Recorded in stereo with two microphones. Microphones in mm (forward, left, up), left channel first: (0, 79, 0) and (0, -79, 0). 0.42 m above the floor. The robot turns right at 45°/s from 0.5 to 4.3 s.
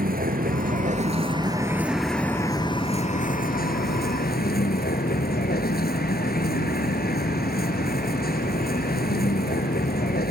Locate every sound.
0.0 s a vehicle: 70° right; by 10.3 s 100° left